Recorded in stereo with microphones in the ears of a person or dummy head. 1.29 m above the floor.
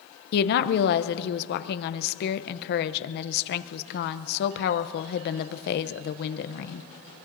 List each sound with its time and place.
0.3 s a woman speaking: 55° left (ahead or behind), 0.7 m